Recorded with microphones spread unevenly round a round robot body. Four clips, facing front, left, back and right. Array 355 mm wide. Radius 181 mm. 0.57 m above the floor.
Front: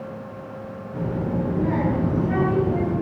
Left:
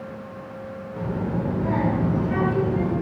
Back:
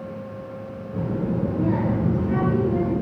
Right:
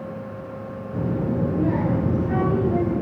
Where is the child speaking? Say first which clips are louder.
Right 3 dB, even; 125° right, 6 m; by 2.9 s 120° right, 7.5 m.